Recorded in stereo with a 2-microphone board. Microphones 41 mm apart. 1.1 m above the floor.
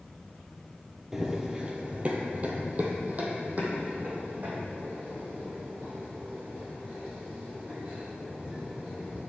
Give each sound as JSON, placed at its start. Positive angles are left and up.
{"t": 1.1, "sound": "running footsteps", "side_deg": -10, "distance_m": 1.1}